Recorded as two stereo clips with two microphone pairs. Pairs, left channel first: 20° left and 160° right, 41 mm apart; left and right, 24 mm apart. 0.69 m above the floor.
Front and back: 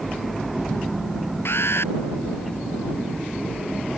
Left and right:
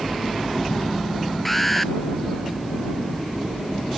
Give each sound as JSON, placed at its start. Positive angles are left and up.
{"t": 1.4, "sound": "an alarm", "azimuth_deg": 10}